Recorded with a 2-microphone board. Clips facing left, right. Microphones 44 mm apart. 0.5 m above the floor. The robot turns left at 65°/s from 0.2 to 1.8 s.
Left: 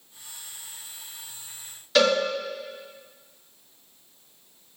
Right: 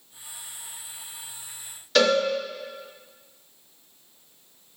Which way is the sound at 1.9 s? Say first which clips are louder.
Even; centre (ahead or behind).